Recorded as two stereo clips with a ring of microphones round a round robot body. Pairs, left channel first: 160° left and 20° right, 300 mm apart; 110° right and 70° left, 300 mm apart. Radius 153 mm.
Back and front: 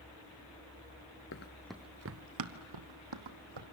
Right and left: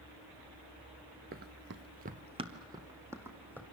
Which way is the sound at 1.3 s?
125° left.